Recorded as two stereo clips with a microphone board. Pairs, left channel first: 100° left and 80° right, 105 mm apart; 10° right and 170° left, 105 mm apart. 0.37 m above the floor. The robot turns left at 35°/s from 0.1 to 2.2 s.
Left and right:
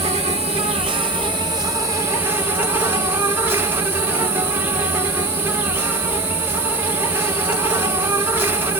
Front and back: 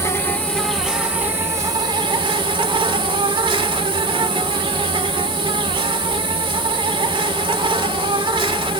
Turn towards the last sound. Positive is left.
turn(degrees=-150)